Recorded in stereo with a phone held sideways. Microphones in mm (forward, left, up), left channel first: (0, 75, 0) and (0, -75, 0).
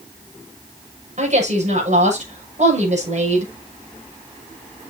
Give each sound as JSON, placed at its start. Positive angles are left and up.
{"t": 1.2, "sound": "a woman speaking", "side_deg": -50, "distance_m": 7.0}